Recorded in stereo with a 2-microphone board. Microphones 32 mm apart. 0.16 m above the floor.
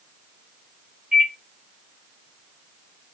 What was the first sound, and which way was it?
A microwave, 30° right (ahead or behind).